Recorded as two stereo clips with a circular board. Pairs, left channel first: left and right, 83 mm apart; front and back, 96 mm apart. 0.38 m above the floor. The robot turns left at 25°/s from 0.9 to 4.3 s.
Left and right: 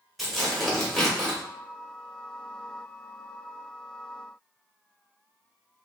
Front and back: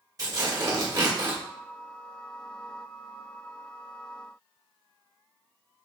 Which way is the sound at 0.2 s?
Straight behind.